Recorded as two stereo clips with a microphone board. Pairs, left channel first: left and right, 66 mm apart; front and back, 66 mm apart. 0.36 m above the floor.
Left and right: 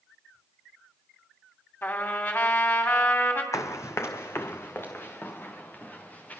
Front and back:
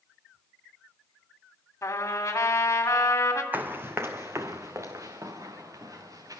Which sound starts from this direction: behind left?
Running footsteps, at 3.5 s.